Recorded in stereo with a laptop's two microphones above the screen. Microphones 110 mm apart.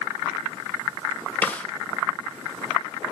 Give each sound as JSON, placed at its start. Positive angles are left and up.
{"t": 1.4, "sound": "a snare drum", "side_deg": 15, "distance_m": 1.3}